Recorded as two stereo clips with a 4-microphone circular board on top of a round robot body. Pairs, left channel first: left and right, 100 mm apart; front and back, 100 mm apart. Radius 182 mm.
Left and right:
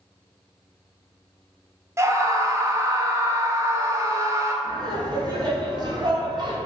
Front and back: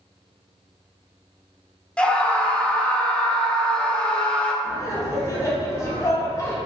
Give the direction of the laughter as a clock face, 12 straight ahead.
2 o'clock.